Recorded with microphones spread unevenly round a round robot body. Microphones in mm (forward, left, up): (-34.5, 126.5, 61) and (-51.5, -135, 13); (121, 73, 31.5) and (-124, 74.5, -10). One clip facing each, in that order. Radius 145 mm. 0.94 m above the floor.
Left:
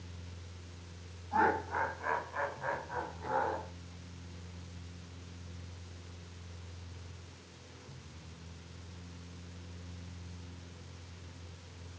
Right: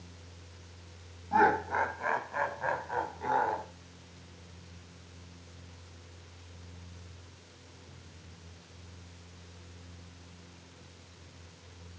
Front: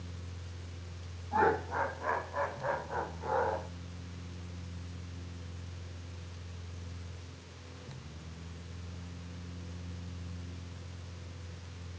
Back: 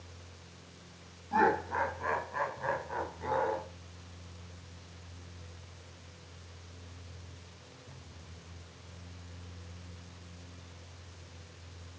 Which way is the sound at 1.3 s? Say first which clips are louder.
Right 4 dB, even; 120° right.